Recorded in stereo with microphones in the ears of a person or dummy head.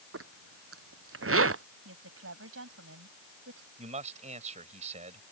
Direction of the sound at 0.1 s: 70° right (ahead or behind).